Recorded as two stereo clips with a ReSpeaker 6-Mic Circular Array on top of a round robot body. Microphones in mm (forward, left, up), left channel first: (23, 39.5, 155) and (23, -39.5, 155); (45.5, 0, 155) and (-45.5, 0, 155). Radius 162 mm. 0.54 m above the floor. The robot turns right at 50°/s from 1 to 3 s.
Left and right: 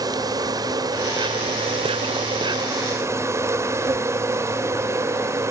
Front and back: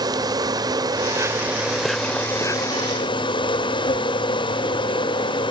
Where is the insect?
135° right; by 5.5 s 35° right.